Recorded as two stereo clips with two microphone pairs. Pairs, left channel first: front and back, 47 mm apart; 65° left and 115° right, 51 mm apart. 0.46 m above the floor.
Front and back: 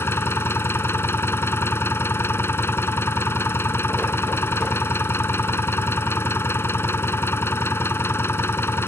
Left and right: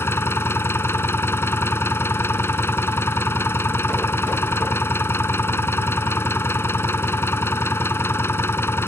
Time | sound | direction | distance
0.0 | an engine running | 30° left | ?